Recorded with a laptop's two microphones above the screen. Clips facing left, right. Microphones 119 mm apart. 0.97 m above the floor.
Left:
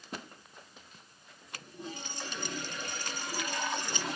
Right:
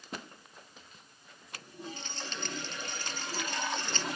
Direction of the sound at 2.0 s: 10° left (ahead or behind).